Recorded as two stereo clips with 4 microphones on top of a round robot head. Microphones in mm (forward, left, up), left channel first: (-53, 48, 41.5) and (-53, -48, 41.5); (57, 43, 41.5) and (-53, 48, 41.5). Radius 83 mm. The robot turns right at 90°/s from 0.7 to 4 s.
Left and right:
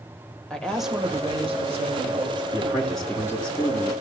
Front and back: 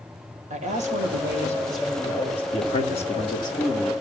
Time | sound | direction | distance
0.5 | a woman speaking | 175° left | 2.5 m
2.5 | a man speaking | 40° right | 2.5 m